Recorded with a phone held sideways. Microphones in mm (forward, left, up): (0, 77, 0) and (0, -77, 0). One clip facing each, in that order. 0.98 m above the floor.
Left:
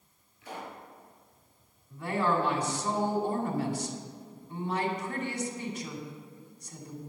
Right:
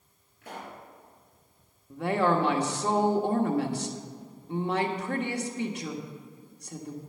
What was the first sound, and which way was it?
A pop, 55° right (ahead or behind).